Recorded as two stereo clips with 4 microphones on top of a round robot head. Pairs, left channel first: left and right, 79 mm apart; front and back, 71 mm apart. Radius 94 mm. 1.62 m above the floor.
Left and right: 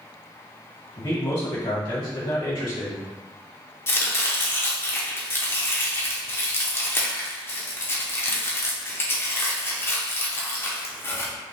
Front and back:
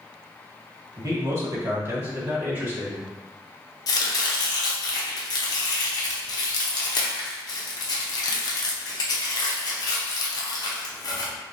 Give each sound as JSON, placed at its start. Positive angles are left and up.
{"t": 1.0, "sound": "a man speaking", "azimuth_deg": 135, "distance_m": 1.6}
{"t": 3.9, "sound": "chopping", "azimuth_deg": 30, "distance_m": 0.8}